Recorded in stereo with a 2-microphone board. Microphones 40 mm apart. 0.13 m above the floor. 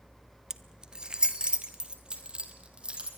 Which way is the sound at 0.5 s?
15° right (ahead or behind).